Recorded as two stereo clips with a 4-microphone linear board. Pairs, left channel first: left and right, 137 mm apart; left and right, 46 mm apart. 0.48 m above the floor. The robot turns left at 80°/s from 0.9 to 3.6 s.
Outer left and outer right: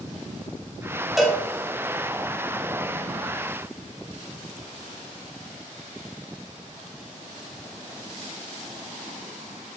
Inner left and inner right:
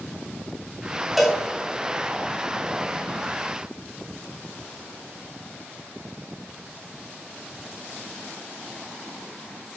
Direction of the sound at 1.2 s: 5° right (ahead or behind).